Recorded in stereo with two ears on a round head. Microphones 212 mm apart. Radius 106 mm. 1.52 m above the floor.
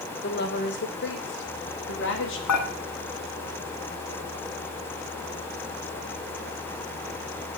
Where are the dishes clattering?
80° left, 6 m.